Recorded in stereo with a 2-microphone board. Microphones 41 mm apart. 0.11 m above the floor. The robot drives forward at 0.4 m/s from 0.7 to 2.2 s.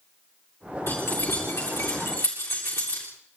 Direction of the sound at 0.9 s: 75° left (ahead or behind).